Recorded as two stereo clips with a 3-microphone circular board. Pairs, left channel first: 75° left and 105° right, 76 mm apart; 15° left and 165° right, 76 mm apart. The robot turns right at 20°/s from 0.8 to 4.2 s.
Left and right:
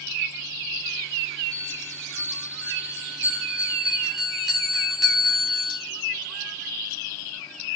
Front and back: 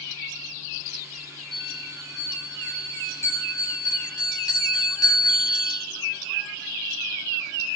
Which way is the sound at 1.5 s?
75° right.